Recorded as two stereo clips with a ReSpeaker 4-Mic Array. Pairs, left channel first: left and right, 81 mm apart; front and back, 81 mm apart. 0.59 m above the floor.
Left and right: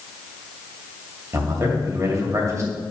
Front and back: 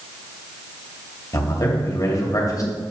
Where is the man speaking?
40° right, 2.5 m.